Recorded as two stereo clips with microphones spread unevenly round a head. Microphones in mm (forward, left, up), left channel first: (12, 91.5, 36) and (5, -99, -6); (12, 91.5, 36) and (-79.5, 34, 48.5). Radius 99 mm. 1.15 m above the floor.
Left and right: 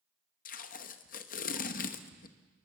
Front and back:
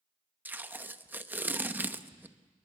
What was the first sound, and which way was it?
Tape being pulled, 140° left.